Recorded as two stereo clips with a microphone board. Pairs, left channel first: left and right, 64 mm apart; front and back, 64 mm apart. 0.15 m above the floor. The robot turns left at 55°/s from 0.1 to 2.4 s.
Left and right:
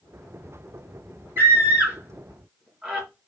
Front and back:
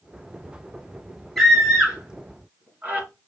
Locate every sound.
1.4 s a scream: 95° right, 1.7 m; by 3.1 s 155° right, 1.7 m